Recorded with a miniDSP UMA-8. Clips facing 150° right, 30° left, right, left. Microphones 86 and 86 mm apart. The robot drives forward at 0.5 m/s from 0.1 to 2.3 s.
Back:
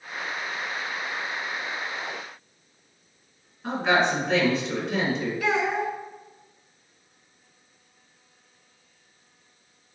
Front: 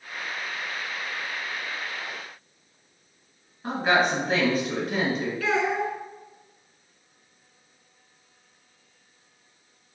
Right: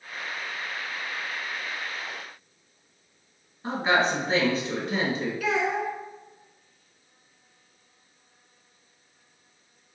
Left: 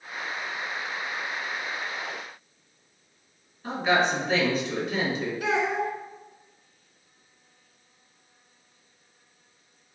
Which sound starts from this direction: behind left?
A child speaking, at 5.4 s.